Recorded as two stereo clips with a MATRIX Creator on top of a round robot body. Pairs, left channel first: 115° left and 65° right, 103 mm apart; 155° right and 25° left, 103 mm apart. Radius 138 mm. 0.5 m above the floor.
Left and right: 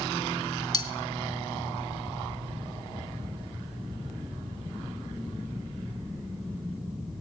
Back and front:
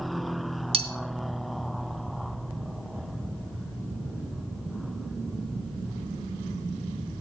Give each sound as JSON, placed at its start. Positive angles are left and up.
{"t": 0.7, "sound": "cutlery clinking", "azimuth_deg": 60, "distance_m": 1.5}